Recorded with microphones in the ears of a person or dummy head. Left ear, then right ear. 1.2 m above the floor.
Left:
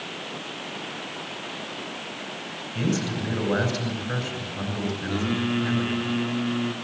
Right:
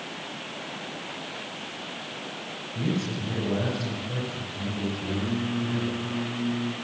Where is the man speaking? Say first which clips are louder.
Left 3 dB; 65° left (ahead or behind), 8.5 m.